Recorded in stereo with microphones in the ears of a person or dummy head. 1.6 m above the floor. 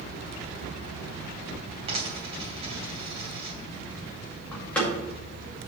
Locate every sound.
1.9 s a dropped coin: 30° right (ahead or behind), 2.5 m
4.5 s a door slam: 10° left (ahead or behind), 2 m